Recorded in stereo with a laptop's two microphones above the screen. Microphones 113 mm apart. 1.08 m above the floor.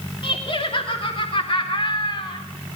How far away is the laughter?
About 3 m.